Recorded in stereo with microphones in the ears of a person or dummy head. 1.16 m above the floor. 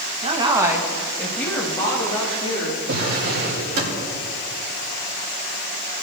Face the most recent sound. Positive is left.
turn(degrees=-75)  # may be behind; listen again after turning